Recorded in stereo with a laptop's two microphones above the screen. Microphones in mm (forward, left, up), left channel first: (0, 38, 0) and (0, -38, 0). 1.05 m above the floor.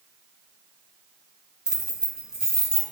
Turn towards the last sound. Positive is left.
turn(degrees=-10)  # may be behind; listen again after turning